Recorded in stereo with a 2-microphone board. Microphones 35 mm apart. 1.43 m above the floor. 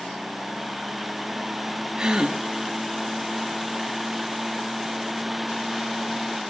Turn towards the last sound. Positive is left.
turn(degrees=-20)  # may be behind; listen again after turning